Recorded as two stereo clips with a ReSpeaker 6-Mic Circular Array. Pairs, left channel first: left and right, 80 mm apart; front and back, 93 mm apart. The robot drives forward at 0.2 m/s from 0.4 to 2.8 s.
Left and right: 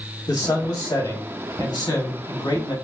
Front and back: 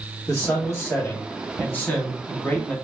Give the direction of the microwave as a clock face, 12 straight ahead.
I don't hear a microwave.